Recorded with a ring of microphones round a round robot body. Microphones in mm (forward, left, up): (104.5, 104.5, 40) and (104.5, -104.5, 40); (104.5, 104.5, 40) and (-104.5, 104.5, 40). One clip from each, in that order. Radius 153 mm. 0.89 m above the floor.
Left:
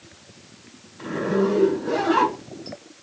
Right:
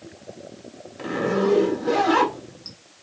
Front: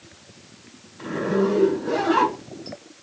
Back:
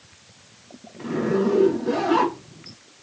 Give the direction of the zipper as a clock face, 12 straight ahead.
3 o'clock.